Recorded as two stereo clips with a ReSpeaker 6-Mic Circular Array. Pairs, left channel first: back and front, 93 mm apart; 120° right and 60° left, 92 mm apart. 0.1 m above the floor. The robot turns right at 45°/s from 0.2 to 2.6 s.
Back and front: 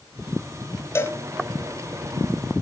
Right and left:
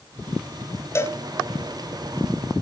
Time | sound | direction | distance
0.9 | a cowbell | 145° right | 0.5 m